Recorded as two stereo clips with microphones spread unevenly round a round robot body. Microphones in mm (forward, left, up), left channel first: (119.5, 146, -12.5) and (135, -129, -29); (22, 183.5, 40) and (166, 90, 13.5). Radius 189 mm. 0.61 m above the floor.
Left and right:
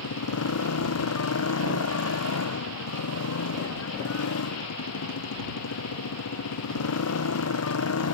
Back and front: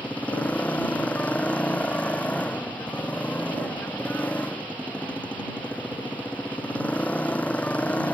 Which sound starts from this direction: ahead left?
A motorcycle, at 0.0 s.